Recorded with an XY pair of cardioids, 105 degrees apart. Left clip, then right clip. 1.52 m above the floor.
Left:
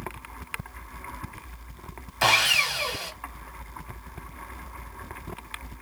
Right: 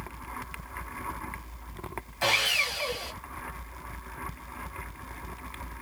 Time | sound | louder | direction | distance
2.2 | sawing | left 5 dB | 60° left | 0.9 m